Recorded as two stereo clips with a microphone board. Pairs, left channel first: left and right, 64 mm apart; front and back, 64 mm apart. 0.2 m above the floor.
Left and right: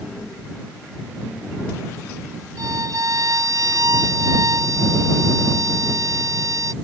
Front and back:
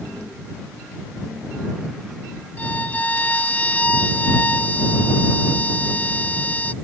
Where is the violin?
65° right.